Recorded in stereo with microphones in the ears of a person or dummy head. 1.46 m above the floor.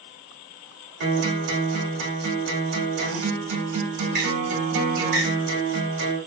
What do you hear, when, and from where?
1.0 s a guitar: 85° right, 2 m